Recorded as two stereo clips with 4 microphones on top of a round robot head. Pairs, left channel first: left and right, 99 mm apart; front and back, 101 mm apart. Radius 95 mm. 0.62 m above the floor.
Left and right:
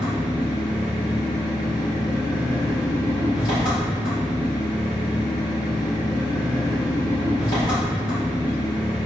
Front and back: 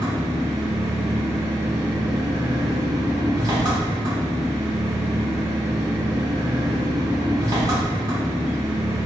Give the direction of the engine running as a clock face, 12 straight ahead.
8 o'clock.